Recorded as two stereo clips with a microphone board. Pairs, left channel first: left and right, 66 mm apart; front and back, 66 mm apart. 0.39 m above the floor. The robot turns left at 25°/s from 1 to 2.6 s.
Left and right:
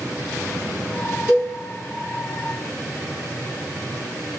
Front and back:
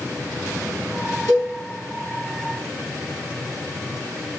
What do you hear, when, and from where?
1.3 s a cowbell: 25° right, 5 m; by 1.5 s 30° right, 5 m